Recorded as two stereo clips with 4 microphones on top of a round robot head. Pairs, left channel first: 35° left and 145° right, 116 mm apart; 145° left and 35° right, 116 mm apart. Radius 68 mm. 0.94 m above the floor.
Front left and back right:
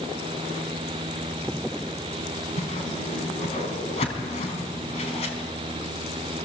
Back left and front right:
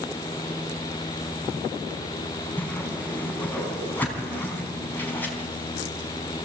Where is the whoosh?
70° left, 3.5 m.